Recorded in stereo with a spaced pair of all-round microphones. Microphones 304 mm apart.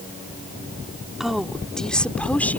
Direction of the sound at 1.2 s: Centre (ahead or behind).